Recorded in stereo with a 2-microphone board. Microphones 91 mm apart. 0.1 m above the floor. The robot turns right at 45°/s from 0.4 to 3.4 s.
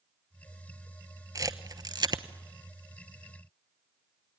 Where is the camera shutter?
40° right (ahead or behind), 0.9 m; by 2.2 s 50° right (ahead or behind), 0.9 m.